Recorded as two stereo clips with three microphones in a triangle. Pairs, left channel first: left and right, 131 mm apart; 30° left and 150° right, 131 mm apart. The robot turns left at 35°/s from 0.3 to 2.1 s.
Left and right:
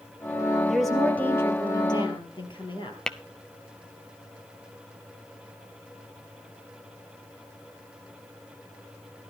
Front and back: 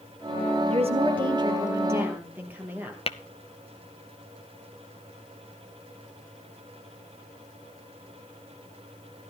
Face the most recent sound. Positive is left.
turn(degrees=5)